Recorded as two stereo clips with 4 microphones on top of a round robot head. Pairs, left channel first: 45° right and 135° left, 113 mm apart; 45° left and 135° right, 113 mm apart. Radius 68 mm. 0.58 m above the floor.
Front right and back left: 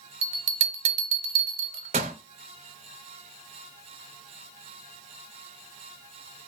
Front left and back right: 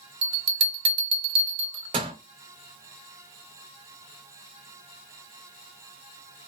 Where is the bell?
175° left, 0.5 m.